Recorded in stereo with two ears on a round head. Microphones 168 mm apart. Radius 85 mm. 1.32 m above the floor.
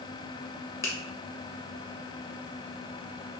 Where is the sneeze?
No sneeze in this recording.